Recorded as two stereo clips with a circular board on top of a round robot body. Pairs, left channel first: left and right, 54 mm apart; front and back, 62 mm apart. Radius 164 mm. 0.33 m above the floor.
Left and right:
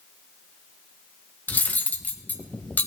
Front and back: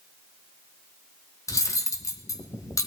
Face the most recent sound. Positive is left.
turn(degrees=30)